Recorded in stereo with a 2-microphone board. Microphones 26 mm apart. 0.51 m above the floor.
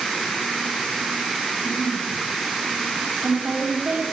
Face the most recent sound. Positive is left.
turn(degrees=-65)  # may be behind; listen again after turning